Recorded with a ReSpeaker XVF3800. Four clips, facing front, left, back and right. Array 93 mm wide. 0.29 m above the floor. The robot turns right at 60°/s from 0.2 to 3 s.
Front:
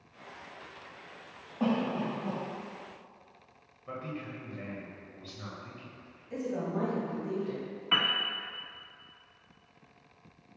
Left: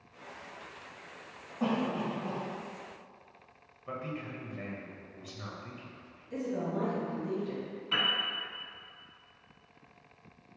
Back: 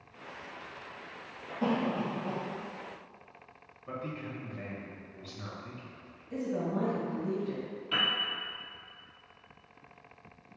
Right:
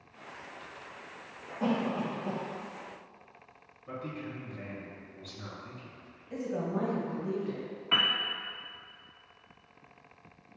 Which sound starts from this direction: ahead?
A cough, at 1.6 s.